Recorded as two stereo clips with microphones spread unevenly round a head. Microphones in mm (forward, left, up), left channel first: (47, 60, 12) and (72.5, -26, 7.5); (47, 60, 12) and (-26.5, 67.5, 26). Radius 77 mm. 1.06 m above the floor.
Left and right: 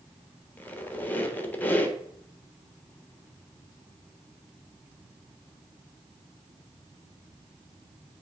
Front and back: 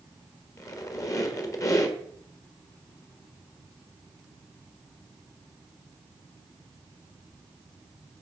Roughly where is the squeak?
Ahead left.